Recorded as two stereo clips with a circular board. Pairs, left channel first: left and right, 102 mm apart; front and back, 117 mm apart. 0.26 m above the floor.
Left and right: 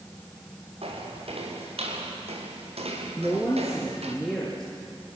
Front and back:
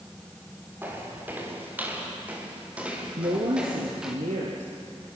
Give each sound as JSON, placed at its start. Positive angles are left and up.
{"t": 0.8, "sound": "footsteps", "azimuth_deg": -105, "distance_m": 7.0}
{"t": 3.2, "sound": "a woman speaking", "azimuth_deg": 175, "distance_m": 4.5}